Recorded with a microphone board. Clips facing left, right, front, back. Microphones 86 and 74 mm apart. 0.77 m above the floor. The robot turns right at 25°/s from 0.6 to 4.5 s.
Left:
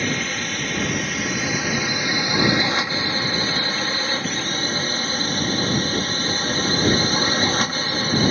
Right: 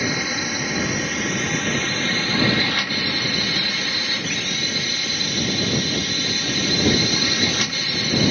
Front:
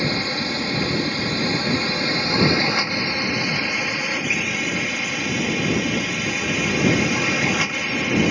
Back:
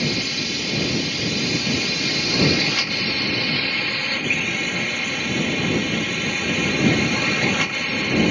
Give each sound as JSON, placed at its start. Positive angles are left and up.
{"t": 0.0, "sound": "a drone", "azimuth_deg": -15}